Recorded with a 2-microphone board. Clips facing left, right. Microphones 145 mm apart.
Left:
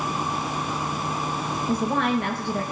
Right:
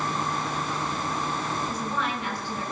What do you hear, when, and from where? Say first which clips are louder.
1.7 s a woman speaking: left 7 dB; 55° left (ahead or behind), 1.3 m